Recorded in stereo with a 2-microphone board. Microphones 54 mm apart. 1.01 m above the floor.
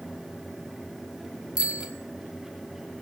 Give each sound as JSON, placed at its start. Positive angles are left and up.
{"t": 1.6, "sound": "a bicycle bell", "side_deg": -20, "distance_m": 4.5}